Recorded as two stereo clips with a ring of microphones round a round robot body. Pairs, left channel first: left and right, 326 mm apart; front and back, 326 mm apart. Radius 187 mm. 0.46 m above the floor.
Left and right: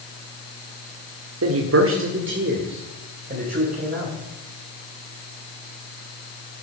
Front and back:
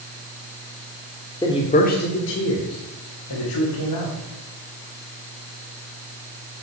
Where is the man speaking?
75° right, 1.6 m; by 4.1 s 25° right, 3.5 m.